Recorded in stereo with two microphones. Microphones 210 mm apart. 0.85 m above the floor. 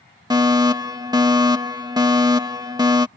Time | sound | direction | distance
0.3 | a fire alarm | 20° right (ahead or behind) | ?